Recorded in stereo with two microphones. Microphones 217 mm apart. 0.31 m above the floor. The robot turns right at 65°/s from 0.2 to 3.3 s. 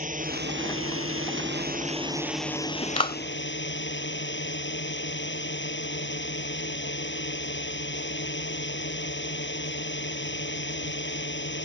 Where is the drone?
140° right; by 11.7 s 60° left.